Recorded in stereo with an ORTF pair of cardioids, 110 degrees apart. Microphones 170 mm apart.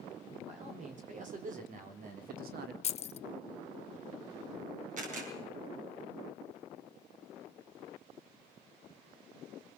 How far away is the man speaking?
About 5.5 m.